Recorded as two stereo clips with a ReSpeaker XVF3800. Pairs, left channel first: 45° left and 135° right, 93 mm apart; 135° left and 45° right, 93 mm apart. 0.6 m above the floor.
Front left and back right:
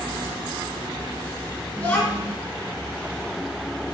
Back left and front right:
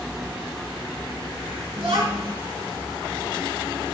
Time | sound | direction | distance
1.8 | a child speaking | 30° right | 4.5 m